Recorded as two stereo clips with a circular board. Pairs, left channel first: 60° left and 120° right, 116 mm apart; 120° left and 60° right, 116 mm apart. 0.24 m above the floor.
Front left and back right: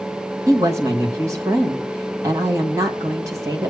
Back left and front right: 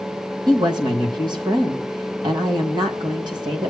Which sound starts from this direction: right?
A woman speaking, at 0.5 s.